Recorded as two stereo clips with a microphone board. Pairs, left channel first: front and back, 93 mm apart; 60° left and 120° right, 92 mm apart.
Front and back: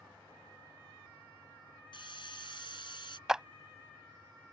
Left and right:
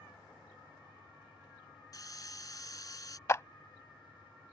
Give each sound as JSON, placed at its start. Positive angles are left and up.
{"t": 1.9, "sound": "a hiss", "azimuth_deg": 15}
{"t": 3.3, "sound": "a clap", "azimuth_deg": 100}